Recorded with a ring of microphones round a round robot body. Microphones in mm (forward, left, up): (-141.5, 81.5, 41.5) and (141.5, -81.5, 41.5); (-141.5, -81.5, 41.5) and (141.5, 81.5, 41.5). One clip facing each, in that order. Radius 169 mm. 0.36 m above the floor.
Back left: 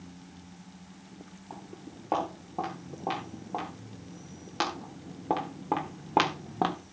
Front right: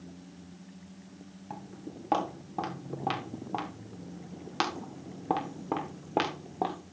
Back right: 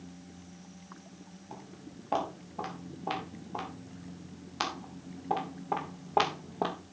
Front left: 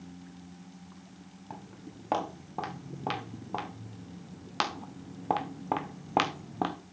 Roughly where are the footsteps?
Ahead.